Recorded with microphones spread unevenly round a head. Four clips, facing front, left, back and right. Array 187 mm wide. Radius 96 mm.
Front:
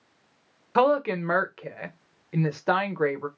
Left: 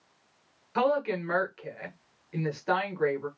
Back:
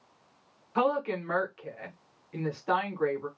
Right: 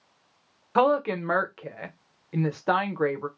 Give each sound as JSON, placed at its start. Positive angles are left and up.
{"t": 0.8, "sound": "a woman speaking", "azimuth_deg": -40, "distance_m": 0.8}